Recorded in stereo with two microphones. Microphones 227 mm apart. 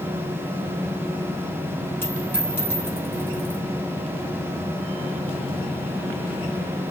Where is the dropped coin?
10° left (ahead or behind), 2 m.